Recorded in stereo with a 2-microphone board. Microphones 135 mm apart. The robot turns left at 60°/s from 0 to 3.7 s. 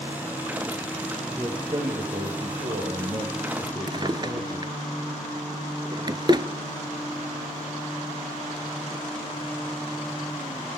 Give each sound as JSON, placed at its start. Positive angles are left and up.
{"t": 1.4, "sound": "a man speaking", "azimuth_deg": -15, "distance_m": 3.0}
{"t": 3.9, "sound": "a drawer", "side_deg": -35, "distance_m": 0.8}